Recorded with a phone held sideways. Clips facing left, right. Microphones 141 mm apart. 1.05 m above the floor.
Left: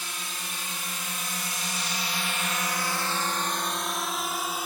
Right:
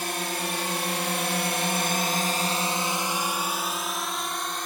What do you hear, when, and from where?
0.0 s a drone: 65° right (ahead or behind); by 4.7 s 5° left (ahead or behind)